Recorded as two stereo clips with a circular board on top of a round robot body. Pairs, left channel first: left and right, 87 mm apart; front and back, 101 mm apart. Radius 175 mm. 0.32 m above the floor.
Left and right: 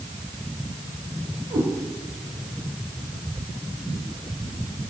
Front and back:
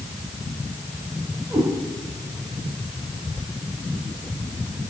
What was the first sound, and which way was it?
A cat meowing, 110° right.